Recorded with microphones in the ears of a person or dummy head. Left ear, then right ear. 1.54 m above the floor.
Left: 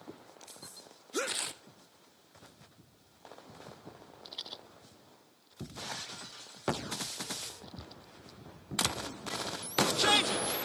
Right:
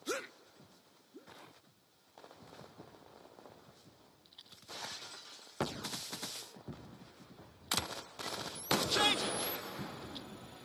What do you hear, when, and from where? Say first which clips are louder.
1.3 s tearing paper: left 18 dB; 45° left (ahead or behind)
4.2 s a rattle: left 9 dB; 40° left (ahead or behind)